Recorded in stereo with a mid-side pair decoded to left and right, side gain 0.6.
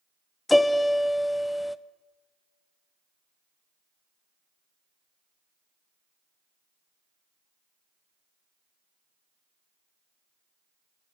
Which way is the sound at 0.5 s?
10° left.